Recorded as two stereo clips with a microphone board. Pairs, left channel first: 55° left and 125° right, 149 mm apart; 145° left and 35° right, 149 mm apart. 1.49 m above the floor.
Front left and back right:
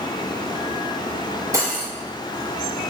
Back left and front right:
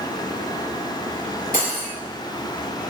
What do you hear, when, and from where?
1.5 s cutlery clinking: 165° left, 3.5 m